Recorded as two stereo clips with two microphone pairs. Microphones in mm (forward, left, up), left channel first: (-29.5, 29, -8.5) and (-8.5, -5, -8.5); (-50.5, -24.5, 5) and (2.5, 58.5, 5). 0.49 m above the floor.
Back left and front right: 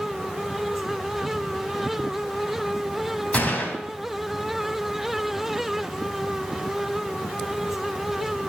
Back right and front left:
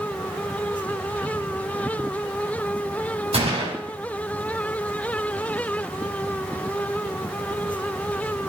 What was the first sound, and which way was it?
A gunshot, 65° left.